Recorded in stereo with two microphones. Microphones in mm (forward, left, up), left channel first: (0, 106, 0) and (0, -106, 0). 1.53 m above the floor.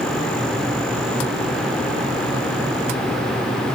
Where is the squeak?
No squeak in this recording.